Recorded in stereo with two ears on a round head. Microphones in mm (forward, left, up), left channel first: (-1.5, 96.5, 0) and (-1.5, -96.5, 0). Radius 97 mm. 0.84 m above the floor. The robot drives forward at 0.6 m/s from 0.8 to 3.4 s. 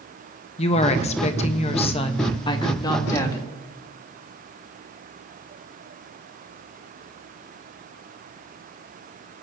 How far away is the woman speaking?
About 0.8 m.